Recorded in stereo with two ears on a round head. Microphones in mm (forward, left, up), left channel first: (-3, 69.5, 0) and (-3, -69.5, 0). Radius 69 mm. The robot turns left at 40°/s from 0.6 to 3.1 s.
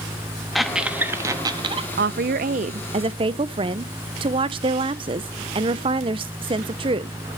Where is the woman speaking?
100° right, 0.5 m; by 7.2 s 145° right, 0.5 m.